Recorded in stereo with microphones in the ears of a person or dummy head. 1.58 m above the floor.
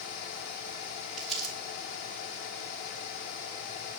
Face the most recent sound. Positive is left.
turn(degrees=5)  # may be behind; listen again after turning